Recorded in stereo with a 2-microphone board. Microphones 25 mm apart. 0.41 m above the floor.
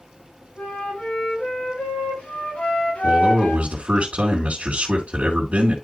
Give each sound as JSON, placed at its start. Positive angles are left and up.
{"t": 0.6, "sound": "a flute", "side_deg": 85, "distance_m": 7.0}
{"t": 3.0, "sound": "a man speaking", "side_deg": -70, "distance_m": 2.5}